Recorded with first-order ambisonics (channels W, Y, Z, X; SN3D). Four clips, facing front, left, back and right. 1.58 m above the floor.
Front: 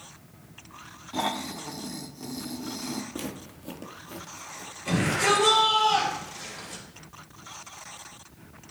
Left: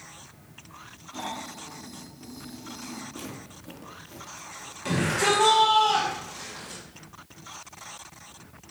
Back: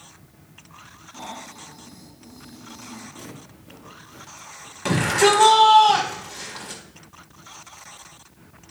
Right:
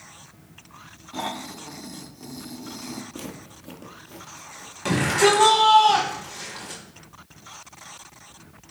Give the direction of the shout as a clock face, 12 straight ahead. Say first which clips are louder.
Right 5 dB, back 6 dB; 5 o'clock.